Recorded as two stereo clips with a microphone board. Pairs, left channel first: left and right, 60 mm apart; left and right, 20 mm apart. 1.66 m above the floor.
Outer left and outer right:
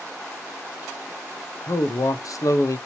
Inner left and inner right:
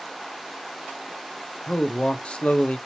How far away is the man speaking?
About 0.7 m.